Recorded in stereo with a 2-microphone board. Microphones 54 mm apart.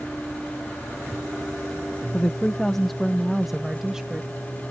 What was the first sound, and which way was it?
A woman speaking, 25° left (ahead or behind).